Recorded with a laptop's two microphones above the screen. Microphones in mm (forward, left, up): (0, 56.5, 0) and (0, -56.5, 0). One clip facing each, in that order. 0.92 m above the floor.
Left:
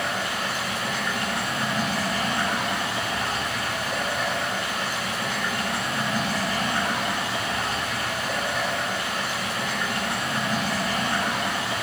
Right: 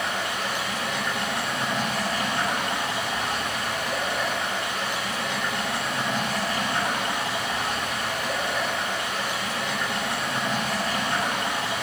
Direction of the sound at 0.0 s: 5° left (ahead or behind).